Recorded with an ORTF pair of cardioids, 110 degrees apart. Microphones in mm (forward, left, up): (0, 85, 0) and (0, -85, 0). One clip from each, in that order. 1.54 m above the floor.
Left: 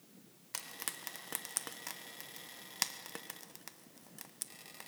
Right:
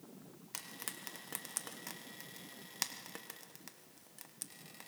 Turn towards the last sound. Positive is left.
turn(degrees=15)